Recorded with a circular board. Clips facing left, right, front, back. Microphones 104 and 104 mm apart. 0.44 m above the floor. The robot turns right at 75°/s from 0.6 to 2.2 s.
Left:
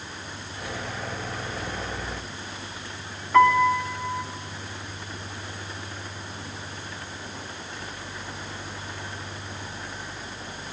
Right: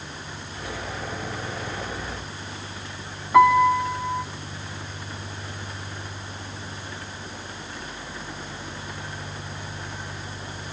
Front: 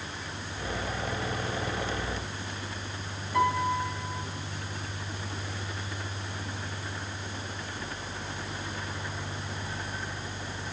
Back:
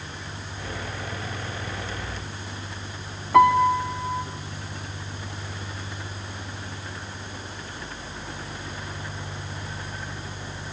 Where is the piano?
170° right, 1.4 m.